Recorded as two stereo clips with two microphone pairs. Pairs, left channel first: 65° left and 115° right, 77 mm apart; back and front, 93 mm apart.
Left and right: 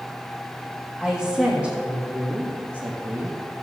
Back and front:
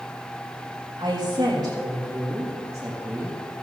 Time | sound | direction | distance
1.0 | a woman speaking | 35° right | 3 m